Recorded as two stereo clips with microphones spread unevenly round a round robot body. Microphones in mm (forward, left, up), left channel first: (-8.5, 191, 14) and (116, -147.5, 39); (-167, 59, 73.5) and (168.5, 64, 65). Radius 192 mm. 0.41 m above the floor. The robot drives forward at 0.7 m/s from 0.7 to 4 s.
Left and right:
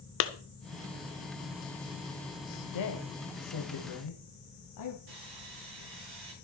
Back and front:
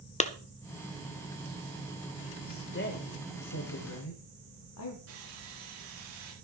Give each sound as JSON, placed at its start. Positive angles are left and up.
{"t": 0.2, "sound": "a clap", "azimuth_deg": 120, "distance_m": 1.0}
{"t": 2.5, "sound": "a woman speaking", "azimuth_deg": 120, "distance_m": 1.6}
{"t": 5.1, "sound": "sawing", "azimuth_deg": -50, "distance_m": 6.0}